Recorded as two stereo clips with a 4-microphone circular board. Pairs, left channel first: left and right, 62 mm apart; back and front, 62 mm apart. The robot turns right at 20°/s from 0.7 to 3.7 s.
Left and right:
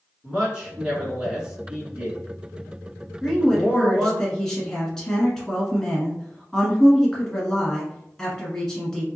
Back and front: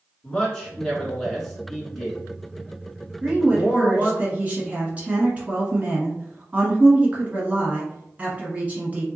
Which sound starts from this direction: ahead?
A woman speaking, at 3.2 s.